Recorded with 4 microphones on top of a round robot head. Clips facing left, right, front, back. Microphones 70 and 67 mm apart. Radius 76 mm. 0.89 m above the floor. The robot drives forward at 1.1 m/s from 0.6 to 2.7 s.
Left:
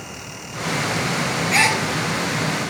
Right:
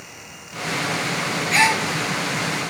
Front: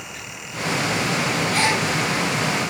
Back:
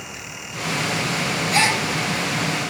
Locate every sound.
1.5 s a gasp: straight behind, 3 m